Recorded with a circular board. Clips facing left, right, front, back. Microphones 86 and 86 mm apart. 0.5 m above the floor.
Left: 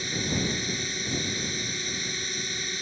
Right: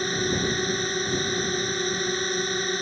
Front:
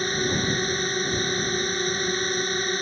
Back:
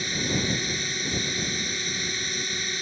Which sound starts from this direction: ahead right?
A drone, at 0.0 s.